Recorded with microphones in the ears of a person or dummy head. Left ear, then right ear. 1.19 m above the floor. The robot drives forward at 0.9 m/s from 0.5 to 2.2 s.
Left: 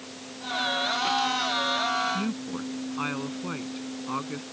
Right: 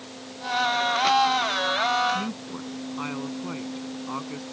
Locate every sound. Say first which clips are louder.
2.1 s a woman speaking: right 1 dB; 5° right (ahead or behind)